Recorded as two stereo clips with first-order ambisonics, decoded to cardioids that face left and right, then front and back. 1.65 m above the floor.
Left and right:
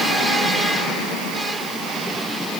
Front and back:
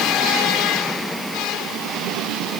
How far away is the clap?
I don't hear a clap.